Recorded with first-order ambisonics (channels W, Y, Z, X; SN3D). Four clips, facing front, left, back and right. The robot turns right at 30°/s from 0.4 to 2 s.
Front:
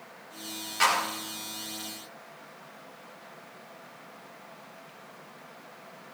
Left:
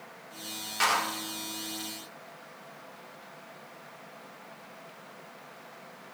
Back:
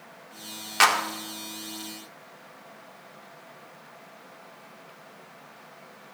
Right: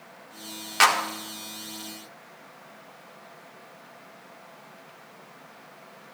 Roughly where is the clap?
Behind right.